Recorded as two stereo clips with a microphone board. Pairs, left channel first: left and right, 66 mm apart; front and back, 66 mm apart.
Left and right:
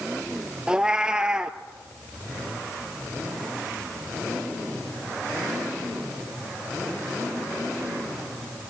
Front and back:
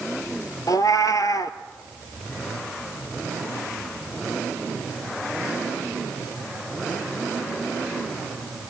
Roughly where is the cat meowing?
Ahead.